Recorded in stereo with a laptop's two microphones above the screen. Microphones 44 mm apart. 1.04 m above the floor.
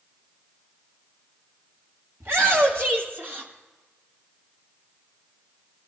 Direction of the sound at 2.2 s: 70° right (ahead or behind).